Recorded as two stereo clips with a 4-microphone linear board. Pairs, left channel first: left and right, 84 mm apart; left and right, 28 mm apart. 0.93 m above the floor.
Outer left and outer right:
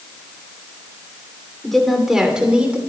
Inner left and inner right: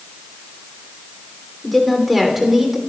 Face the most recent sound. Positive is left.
turn(degrees=-15)  # may be behind; listen again after turning